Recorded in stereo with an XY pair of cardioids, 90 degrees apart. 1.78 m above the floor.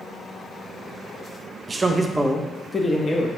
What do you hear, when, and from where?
1.7 s a man speaking: 35° right, 0.6 m; by 3.3 s 45° left, 0.8 m